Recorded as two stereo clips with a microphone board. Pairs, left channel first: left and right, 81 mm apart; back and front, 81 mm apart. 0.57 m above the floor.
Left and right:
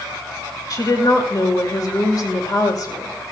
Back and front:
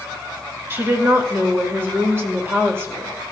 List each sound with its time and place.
0.7 s a woman speaking: 60° left, 2.5 m